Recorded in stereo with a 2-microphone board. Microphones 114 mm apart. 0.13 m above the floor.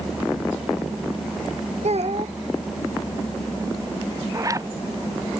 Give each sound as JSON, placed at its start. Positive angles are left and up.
{"t": 1.8, "sound": "a child speaking", "side_deg": -75}
{"t": 4.3, "sound": "a zipper", "side_deg": -30}